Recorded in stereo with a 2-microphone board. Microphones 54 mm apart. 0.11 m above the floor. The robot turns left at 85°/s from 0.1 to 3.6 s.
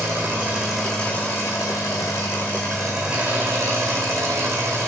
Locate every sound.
0.0 s an engine running: 125° right, 3.5 m; by 4.9 s 60° right, 3.5 m